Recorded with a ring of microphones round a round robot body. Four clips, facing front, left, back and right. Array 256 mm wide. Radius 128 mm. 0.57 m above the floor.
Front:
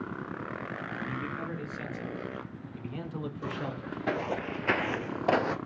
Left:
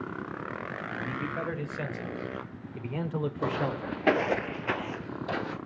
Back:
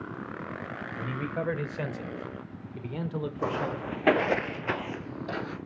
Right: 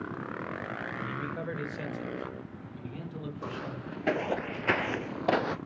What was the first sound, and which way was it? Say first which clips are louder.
A man speaking: left 5 dB, back 5 dB; 175° left.